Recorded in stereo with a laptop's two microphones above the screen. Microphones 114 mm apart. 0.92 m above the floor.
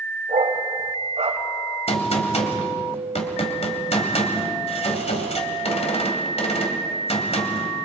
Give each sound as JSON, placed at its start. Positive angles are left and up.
{"t": 0.3, "sound": "a dog barking", "side_deg": -80, "distance_m": 2.0}
{"t": 1.9, "sound": "a gunshot", "side_deg": 70, "distance_m": 2.5}